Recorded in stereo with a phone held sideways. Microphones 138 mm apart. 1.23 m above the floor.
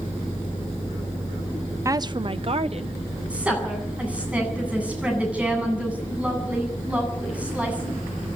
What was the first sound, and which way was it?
A woman speaking, 20° right (ahead or behind).